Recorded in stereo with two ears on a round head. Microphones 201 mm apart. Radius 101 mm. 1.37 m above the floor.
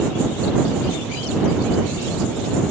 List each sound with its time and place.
Only background noise.